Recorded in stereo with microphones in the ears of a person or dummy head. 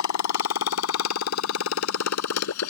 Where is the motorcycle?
80° left; by 2.7 s 85° left.